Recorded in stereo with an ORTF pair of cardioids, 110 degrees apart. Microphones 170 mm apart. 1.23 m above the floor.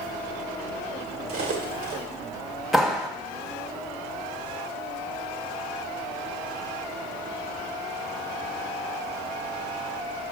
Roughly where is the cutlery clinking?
Right.